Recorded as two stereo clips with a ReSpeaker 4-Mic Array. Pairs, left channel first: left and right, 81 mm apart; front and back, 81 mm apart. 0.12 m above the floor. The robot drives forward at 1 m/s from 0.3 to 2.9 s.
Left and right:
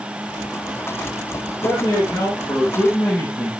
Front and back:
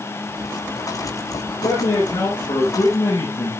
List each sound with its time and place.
1.6 s a man speaking: 25° left, 6.5 m; by 3.5 s 30° left, 5.5 m